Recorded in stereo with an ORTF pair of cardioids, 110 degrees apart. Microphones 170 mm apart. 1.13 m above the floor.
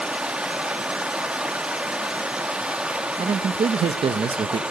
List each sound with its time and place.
0.0 s running water: 5° right, 1.4 m
3.2 s a man speaking: 35° right, 1.0 m